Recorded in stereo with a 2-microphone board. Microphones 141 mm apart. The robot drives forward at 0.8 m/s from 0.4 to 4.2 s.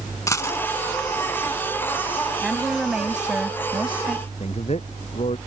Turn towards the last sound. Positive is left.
turn(degrees=50)  # may be behind; listen again after turning